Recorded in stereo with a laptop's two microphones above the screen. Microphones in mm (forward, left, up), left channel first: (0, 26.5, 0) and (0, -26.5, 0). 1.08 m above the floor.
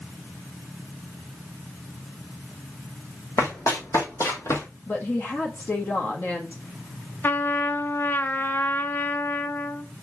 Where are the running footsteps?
65° left (ahead or behind), 3 m; by 4.7 s 50° left (ahead or behind), 1.8 m.